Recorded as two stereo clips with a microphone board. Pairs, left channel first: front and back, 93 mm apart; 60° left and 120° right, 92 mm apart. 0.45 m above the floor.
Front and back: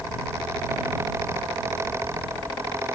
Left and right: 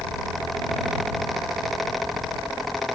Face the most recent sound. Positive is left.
No sound to turn to.